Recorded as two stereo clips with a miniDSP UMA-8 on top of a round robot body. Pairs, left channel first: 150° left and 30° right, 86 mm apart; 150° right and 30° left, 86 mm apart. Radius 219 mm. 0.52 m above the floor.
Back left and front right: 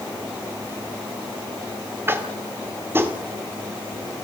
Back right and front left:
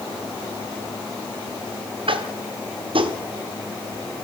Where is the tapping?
35° left, 1.9 m.